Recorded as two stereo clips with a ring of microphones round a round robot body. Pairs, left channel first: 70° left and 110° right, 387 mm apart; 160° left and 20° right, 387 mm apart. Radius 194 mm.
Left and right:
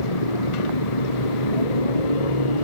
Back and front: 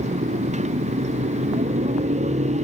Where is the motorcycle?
50° left.